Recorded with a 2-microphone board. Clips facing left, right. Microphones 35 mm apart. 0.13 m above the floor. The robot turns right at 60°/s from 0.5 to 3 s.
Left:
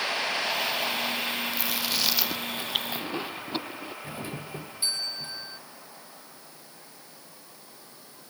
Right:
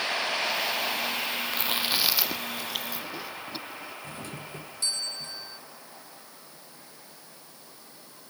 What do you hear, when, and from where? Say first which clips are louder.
1.5 s chewing: right 1 dB; 45° right (ahead or behind); by 3.9 s 40° left (ahead or behind)
4.0 s a doorbell: left 2 dB; 20° left (ahead or behind)